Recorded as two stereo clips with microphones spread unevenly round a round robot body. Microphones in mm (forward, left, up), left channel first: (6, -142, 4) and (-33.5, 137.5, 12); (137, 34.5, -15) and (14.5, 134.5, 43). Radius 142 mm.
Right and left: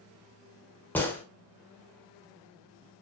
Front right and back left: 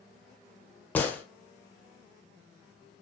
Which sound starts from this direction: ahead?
A gunshot, at 0.9 s.